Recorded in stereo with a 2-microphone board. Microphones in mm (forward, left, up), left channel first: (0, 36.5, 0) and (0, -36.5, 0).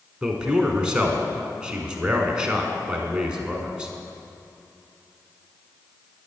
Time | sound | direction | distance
0.2 | a man speaking | 15° right (ahead or behind) | 1.1 m